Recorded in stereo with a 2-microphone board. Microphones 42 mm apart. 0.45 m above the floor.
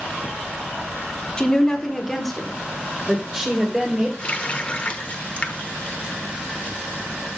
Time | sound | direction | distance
1.4 | a woman speaking | 20° left (ahead or behind) | 1.3 m
4.2 | a running tap | 30° left (ahead or behind) | 0.9 m